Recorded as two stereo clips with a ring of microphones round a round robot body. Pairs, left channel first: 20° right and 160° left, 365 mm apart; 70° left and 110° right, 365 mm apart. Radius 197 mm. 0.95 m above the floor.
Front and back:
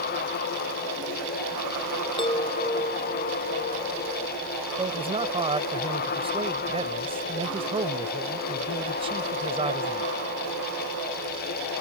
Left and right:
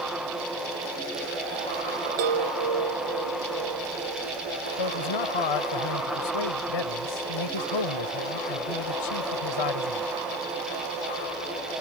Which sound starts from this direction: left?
A man speaking, at 4.8 s.